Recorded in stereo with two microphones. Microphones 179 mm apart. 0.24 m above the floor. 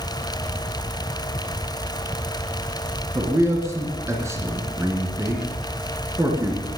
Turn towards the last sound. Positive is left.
turn(degrees=-15)  # may be behind; listen again after turning